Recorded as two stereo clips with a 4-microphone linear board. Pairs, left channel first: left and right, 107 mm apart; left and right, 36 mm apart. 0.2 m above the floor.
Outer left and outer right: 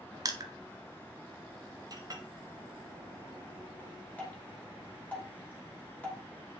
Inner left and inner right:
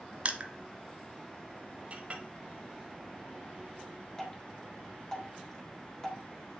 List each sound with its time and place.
0.2 s crushing: 40° right (ahead or behind), 0.9 m
1.9 s a clink: 40° right (ahead or behind), 1.1 m
4.2 s dripping: 15° left (ahead or behind), 2.5 m